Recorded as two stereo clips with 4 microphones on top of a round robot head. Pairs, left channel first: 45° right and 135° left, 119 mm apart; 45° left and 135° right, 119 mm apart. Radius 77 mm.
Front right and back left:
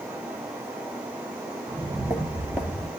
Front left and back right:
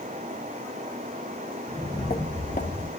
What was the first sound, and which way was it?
Footsteps, 115° left.